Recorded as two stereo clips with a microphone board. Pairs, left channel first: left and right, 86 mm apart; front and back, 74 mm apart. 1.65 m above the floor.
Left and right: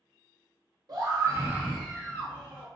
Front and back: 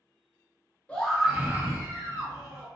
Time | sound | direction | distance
0.9 | a scream | 70° right | 0.9 m